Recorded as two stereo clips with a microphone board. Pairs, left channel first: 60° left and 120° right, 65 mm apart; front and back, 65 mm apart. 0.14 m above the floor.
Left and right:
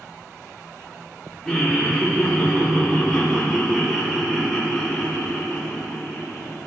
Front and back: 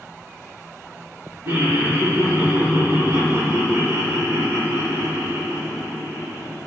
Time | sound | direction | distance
1.4 | laughter | 135° left | 2.5 m